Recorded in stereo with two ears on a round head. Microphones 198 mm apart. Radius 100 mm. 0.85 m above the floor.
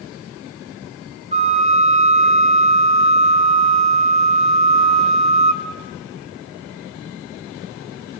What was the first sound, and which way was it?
A flute, 35° right (ahead or behind).